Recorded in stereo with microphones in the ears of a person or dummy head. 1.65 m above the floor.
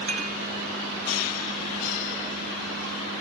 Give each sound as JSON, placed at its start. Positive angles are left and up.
{"t": 0.1, "sound": "dishes clattering", "side_deg": -75, "distance_m": 4.5}